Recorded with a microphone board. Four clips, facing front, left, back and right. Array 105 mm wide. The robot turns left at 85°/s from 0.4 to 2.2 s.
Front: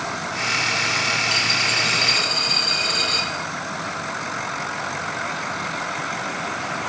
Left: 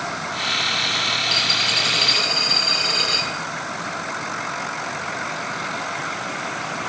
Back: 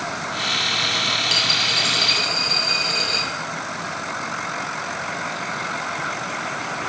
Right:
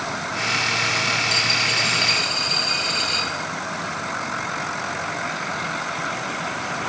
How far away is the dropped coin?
About 1.6 m.